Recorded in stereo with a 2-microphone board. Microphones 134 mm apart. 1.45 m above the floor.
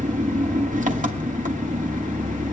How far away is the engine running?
About 2 m.